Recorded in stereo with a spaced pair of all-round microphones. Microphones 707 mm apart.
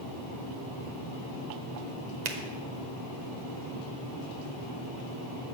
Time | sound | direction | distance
2.2 | a finger snap | 70° right (ahead or behind) | 1.0 m